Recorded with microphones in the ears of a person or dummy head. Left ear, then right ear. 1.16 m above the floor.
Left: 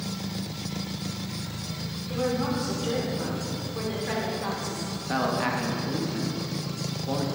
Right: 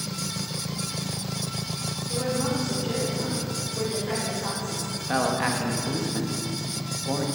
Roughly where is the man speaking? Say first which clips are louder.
Right 2 dB; centre.